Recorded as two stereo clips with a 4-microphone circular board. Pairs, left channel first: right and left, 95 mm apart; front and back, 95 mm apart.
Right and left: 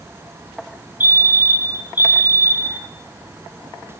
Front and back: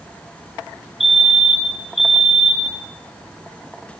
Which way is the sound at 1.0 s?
95° left.